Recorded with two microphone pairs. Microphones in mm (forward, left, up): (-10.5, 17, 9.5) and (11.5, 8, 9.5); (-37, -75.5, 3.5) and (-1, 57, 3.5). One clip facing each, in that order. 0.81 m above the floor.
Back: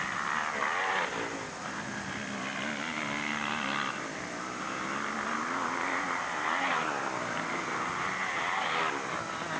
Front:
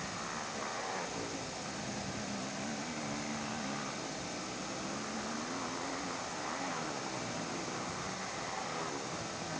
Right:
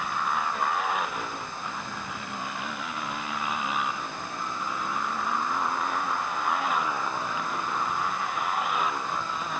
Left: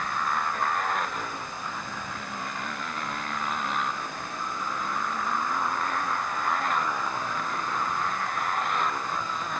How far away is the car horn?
No car horn in this recording.